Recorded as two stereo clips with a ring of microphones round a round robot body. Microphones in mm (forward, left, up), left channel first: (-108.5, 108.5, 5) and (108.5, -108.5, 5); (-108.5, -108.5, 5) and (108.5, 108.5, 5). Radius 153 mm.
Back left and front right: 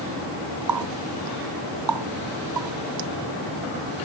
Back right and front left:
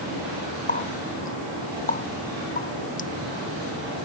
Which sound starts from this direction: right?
A running tap, at 0.7 s.